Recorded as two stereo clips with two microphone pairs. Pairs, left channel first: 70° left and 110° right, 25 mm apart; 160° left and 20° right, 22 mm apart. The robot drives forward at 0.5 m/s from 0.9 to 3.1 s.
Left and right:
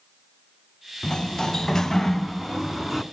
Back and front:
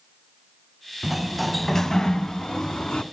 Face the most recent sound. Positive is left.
turn(degrees=165)